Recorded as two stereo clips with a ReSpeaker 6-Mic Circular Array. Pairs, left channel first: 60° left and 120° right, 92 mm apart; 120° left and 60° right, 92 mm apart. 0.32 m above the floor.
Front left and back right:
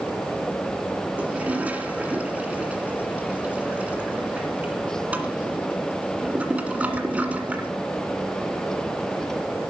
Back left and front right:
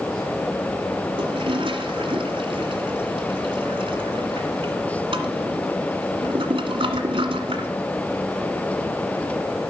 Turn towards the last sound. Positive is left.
turn(degrees=-45)